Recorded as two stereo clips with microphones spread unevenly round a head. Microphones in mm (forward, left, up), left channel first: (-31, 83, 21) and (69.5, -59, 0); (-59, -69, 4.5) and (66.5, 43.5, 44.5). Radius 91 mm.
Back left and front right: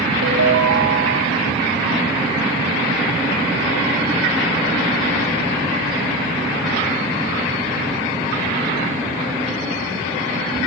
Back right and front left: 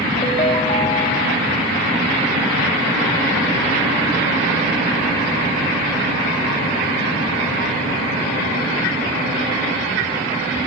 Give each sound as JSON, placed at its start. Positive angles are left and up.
{"t": 0.2, "sound": "a ringtone", "azimuth_deg": -80, "distance_m": 4.0}